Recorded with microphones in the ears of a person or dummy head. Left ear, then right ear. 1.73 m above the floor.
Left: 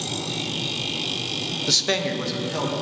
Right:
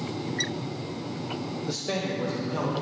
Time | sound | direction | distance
1.7 | a man speaking | 45° left (ahead or behind) | 0.7 m